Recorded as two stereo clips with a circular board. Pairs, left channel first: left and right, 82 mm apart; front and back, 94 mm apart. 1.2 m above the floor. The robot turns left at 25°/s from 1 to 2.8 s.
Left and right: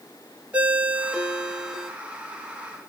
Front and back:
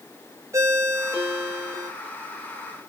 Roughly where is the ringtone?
Behind right.